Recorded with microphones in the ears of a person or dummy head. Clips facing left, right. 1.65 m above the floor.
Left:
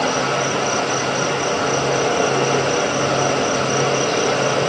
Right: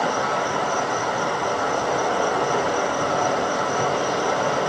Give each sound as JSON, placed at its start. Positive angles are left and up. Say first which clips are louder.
{"t": 0.0, "sound": "an insect", "louder": "left 3 dB", "side_deg": 35, "distance_m": 0.9}